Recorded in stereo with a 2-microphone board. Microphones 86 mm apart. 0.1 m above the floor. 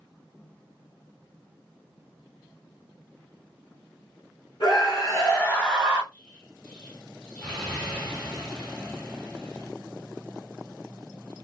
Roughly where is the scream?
Left.